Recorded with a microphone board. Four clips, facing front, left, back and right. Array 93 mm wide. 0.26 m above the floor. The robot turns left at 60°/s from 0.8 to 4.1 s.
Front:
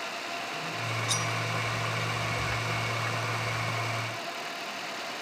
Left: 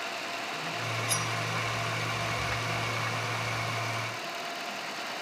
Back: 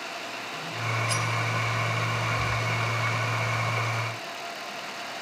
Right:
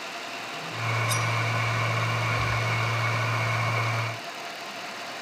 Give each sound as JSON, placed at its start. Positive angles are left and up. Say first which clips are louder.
{"t": 1.1, "sound": "cutlery clinking", "louder": "right 4 dB, back 3 dB", "azimuth_deg": 170, "distance_m": 0.8}